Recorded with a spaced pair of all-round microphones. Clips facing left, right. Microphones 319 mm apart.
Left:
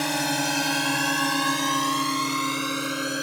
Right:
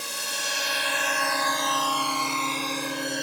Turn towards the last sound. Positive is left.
turn(degrees=10)  # may be behind; listen again after turning